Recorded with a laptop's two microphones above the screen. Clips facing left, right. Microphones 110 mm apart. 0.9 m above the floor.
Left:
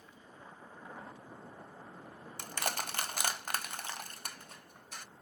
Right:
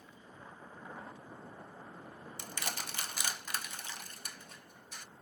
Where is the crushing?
55° left (ahead or behind), 0.9 m.